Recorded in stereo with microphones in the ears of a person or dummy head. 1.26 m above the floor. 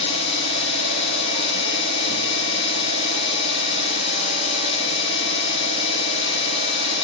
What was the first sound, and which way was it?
An engine running, 35° left (ahead or behind).